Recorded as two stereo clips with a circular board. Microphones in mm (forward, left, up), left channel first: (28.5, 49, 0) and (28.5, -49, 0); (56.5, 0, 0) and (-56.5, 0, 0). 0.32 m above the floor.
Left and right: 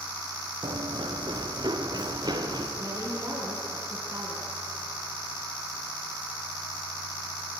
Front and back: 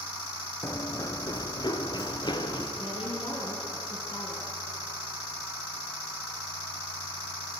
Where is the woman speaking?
40° right, 3.5 m.